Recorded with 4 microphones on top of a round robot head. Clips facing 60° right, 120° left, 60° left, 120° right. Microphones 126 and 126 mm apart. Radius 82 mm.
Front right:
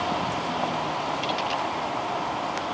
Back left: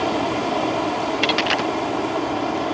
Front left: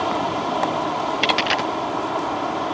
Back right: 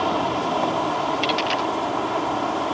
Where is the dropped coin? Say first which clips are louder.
Back left 6 dB, front left 1 dB; 95° left.